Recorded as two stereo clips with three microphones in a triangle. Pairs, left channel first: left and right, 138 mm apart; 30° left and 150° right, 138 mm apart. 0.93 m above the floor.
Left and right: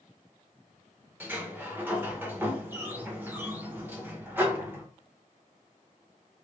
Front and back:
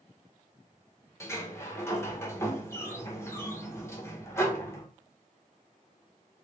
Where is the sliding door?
25° right, 0.7 m.